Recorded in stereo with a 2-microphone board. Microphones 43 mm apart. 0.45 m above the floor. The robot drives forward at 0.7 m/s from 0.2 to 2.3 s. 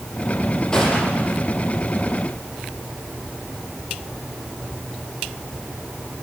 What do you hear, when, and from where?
0.7 s a gunshot: 15° left (ahead or behind), 6 m